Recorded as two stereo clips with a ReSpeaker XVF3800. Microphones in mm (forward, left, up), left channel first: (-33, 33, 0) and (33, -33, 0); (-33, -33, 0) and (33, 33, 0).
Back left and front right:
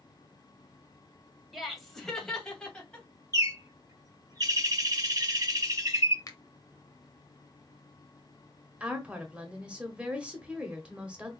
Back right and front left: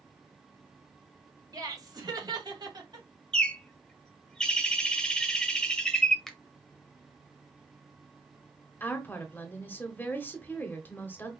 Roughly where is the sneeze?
I don't hear a sneeze.